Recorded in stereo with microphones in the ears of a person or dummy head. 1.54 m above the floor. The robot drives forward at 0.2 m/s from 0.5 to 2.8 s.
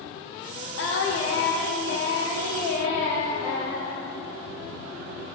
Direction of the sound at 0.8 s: 70° left (ahead or behind).